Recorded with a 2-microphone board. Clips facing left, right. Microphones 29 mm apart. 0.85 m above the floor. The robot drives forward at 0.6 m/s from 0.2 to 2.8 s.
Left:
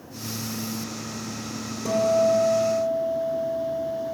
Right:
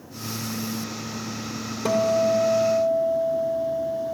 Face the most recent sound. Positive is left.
turn(degrees=-50)  # may be behind; listen again after turning